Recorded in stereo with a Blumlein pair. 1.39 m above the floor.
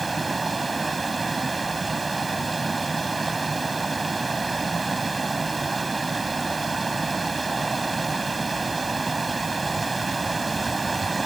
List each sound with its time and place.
0.0 s running water: 10° right